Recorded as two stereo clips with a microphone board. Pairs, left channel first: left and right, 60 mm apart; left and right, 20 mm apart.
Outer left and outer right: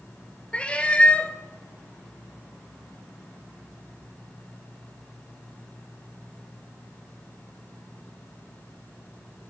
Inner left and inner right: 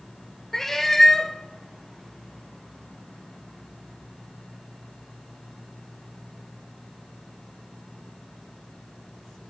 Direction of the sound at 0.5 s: 20° left (ahead or behind).